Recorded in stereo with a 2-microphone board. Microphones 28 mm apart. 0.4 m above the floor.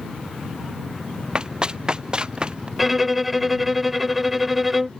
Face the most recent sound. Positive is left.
turn(degrees=-5)  # may be behind; listen again after turning